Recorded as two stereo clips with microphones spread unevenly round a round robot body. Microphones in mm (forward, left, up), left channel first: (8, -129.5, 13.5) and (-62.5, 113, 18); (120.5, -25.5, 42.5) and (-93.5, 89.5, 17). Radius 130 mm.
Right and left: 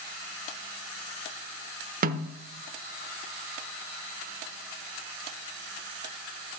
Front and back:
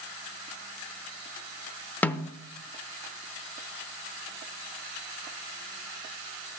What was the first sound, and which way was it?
A snare drum, 60° left.